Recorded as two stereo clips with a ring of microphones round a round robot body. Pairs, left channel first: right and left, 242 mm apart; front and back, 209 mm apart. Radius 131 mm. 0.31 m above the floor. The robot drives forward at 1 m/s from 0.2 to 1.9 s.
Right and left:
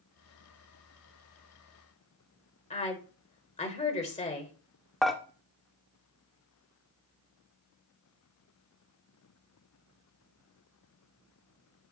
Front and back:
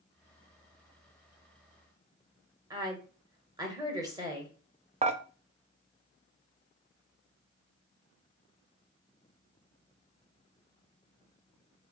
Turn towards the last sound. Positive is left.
turn(degrees=180)